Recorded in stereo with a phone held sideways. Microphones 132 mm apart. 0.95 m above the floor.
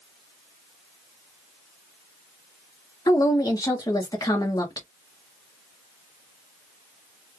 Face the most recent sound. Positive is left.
turn(degrees=25)  # may be behind; listen again after turning